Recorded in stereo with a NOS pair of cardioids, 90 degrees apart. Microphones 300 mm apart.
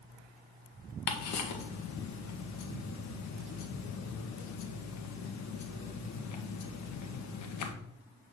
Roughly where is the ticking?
Left.